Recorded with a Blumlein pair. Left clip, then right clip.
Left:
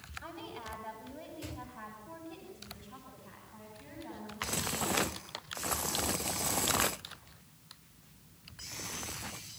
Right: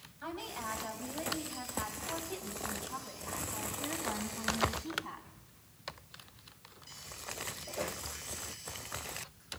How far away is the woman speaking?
About 9 m.